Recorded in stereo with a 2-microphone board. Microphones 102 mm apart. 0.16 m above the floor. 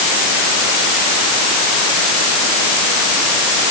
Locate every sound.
Only background noise.